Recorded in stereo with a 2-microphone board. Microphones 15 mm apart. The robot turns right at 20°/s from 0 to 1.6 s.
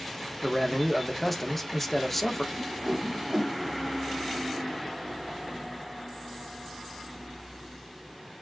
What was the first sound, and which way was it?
A man speaking, 20° right (ahead or behind).